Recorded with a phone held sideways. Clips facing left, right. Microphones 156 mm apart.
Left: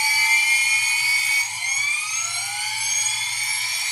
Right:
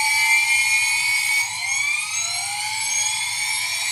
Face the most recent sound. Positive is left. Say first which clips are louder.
# right 2 dB
turn(degrees=-30)  # may be behind; listen again after turning